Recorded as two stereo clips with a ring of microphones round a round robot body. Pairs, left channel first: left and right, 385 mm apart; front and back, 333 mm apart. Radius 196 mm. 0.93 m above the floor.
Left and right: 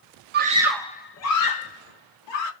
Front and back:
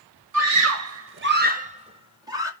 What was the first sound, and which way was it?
A scream, 145° right.